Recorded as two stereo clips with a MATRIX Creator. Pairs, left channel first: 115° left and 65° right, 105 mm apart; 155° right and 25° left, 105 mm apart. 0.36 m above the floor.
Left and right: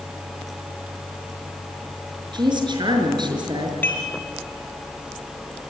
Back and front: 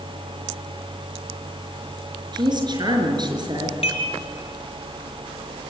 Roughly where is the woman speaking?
Ahead.